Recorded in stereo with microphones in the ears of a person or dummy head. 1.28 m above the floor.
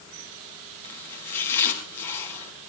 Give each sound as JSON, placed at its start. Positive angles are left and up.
{"t": 0.8, "sound": "chopping", "side_deg": 15, "distance_m": 5.0}